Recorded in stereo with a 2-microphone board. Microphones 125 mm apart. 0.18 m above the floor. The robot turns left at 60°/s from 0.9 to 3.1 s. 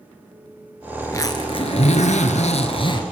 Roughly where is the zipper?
Behind.